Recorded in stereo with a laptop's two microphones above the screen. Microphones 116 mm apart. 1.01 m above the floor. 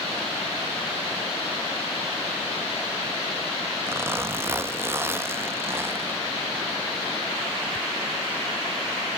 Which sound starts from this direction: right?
A zipper, at 3.9 s.